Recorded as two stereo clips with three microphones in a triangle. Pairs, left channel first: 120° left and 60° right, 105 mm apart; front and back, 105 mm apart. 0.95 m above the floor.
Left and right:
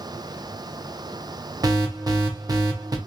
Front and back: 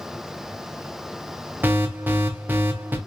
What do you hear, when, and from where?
1.6 s an alarm: 105° right, 0.5 m